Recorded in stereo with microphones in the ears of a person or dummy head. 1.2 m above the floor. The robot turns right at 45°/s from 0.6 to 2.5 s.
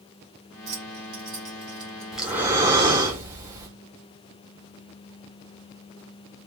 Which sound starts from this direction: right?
Keys jangling, at 0.7 s.